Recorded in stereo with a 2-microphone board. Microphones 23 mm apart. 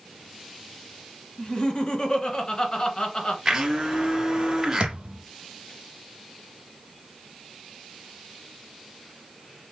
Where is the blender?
25° right (ahead or behind), 2 m.